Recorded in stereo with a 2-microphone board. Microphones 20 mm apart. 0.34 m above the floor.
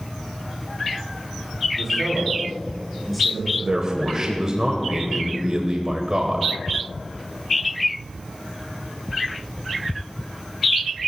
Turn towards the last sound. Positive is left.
turn(degrees=-30)  # may be behind; listen again after turning